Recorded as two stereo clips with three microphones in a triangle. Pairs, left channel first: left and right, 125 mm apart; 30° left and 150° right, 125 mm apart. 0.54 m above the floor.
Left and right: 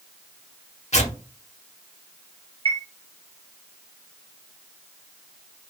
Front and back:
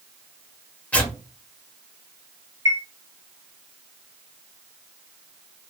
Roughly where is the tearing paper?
Left.